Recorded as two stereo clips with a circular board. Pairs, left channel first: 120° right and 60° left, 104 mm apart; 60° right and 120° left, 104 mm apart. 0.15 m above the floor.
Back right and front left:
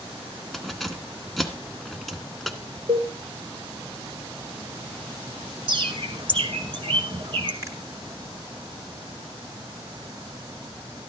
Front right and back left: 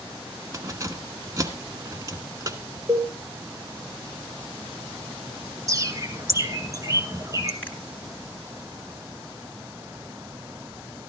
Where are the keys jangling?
150° left, 1.0 m.